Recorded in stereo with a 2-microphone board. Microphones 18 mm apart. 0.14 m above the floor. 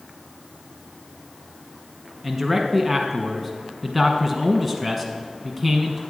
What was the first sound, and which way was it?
A man speaking, centre (ahead or behind).